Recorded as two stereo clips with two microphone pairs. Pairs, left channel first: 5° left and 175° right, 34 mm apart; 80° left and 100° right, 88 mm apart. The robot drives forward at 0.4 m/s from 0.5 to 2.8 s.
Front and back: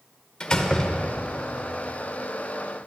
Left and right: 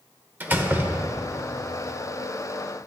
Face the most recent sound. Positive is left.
turn(degrees=-145)